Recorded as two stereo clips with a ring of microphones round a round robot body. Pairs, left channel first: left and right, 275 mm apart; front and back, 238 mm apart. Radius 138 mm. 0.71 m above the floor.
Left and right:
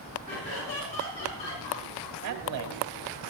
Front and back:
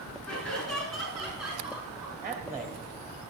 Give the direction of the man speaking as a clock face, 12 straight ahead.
3 o'clock.